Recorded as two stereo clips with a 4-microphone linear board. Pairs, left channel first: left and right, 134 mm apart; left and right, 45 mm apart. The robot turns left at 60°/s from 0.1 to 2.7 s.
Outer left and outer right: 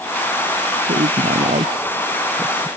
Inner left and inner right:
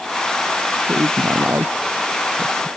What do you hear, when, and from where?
0.8 s a woman speaking: 70° right (ahead or behind); by 2.7 s 5° left (ahead or behind)